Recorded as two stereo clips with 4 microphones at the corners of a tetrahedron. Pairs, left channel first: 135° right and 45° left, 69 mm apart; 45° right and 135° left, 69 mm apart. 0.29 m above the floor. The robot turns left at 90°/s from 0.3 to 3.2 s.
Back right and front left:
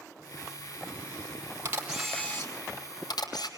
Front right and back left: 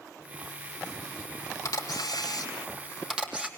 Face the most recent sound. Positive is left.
turn(degrees=-150)